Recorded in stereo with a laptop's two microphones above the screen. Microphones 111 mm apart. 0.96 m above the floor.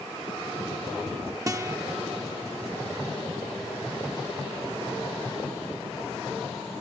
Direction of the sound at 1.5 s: 30° right (ahead or behind).